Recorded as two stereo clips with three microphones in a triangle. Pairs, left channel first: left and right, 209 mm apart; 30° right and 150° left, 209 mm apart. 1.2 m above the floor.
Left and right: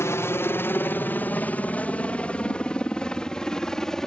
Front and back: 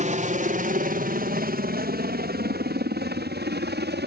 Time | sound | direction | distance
0.0 | a helicopter | 160° left | ?